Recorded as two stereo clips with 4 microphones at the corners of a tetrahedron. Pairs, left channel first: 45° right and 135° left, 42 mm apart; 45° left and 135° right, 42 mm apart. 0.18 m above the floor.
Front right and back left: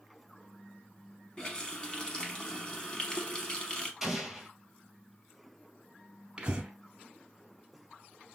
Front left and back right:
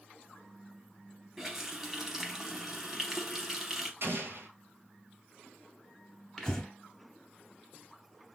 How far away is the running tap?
About 0.7 m.